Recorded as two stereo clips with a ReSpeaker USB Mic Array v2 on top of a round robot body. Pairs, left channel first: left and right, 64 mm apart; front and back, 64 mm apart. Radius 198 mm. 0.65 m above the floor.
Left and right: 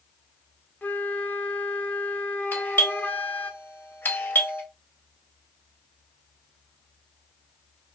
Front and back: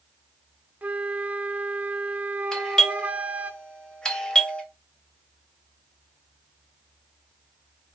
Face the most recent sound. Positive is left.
turn(degrees=70)